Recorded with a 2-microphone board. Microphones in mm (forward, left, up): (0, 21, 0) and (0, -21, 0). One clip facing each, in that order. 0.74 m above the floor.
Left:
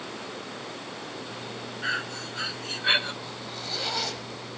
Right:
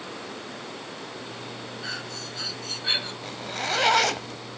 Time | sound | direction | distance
1.8 | breathing | 30° left (ahead or behind) | 1.1 m
3.2 | a zipper | 60° right (ahead or behind) | 0.9 m